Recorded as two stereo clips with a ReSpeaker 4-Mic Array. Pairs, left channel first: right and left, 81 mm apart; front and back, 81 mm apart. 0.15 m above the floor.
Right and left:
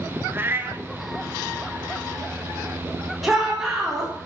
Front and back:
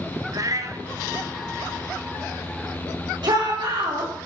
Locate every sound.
0.3 s a cat meowing: 150° left, 1.3 m
3.2 s a shout: straight behind, 7 m